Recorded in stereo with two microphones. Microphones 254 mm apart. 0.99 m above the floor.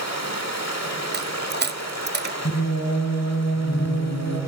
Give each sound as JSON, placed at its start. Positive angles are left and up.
{"t": 0.0, "sound": "running water", "side_deg": 75, "distance_m": 1.9}
{"t": 1.1, "sound": "a dropped coin", "side_deg": -40, "distance_m": 0.6}
{"t": 2.5, "sound": "singing", "side_deg": 70, "distance_m": 3.5}